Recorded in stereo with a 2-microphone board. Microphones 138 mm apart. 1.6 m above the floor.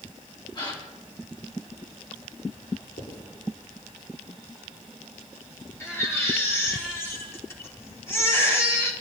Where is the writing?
75° left (ahead or behind), 9.5 m.